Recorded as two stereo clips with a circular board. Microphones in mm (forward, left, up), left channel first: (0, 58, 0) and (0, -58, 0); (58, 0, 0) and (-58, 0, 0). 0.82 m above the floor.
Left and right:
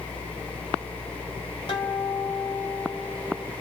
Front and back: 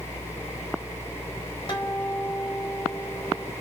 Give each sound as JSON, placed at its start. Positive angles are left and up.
{"t": 1.7, "sound": "a guitar", "azimuth_deg": 45, "distance_m": 2.0}